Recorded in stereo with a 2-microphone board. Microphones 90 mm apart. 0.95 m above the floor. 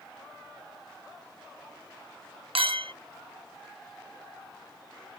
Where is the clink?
80° right.